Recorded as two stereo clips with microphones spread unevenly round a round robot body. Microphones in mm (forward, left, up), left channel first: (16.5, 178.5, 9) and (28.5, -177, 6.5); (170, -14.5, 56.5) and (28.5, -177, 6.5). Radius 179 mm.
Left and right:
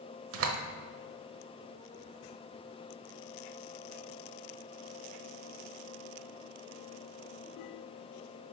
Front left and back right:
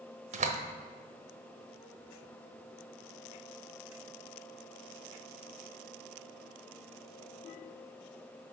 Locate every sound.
0.3 s a door slam: 120° right, 0.9 m